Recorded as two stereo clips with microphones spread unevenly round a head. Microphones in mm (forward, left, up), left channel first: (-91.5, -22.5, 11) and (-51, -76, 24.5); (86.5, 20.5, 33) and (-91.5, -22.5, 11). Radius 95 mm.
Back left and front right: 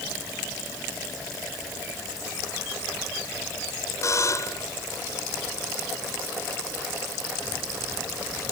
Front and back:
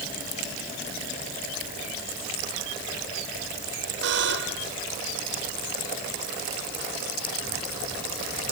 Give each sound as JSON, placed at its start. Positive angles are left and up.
{"t": 4.0, "sound": "a buzzer", "azimuth_deg": 165}